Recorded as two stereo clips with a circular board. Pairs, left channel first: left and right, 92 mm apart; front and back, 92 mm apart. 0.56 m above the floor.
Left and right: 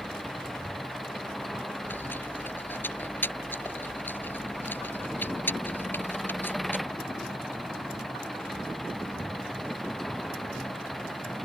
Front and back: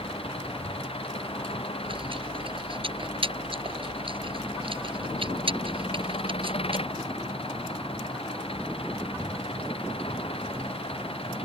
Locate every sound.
0.0 s an engine running: straight ahead
1.8 s chewing: 160° left